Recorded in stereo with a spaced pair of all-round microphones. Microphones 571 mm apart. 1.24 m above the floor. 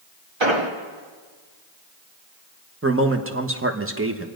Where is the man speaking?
20° right (ahead or behind), 1.1 m.